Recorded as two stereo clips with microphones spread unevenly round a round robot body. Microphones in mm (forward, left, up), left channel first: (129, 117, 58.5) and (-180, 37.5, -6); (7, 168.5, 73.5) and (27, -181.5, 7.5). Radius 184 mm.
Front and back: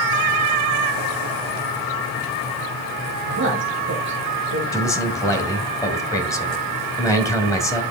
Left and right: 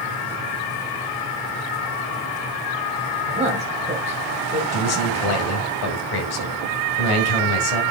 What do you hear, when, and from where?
3.3 s a woman speaking: 140° right, 1.7 m
4.7 s a man speaking: 100° left, 2.5 m